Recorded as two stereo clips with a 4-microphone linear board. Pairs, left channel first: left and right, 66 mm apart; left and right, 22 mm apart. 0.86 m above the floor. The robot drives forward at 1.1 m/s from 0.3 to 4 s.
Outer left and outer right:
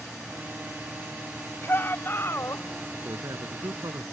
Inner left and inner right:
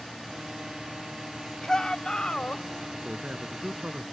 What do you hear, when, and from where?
1.6 s a shout: 35° left (ahead or behind); by 2.6 s 45° left (ahead or behind)
3.0 s a man speaking: 60° right (ahead or behind); by 4.0 s 65° right (ahead or behind)